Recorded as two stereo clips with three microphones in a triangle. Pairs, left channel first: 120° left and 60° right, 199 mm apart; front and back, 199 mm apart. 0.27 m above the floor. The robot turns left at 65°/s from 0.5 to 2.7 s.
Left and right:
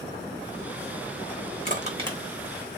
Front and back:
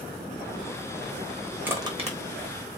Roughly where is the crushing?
Right.